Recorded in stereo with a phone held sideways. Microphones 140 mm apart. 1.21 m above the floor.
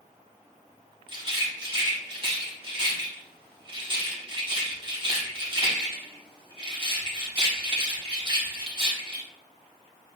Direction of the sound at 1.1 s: 35° right (ahead or behind).